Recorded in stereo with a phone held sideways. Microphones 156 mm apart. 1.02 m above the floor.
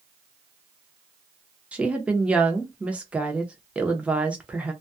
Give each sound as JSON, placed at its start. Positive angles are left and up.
{"t": 1.7, "sound": "a woman speaking", "side_deg": -5, "distance_m": 0.7}